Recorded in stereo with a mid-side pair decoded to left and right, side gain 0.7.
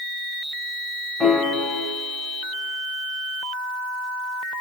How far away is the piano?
About 0.9 m.